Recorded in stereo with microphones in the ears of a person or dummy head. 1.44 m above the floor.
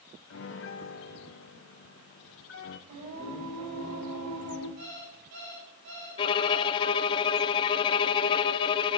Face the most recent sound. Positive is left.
turn(degrees=25)  # may be behind; listen again after turning